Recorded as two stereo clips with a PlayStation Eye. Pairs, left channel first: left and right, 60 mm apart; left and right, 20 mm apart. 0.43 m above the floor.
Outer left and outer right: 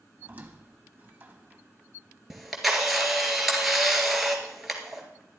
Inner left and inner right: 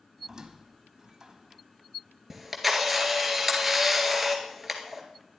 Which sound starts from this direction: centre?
A camera shutter, at 2.3 s.